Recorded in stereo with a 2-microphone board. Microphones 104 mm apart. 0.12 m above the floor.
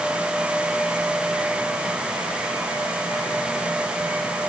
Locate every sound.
Only background noise.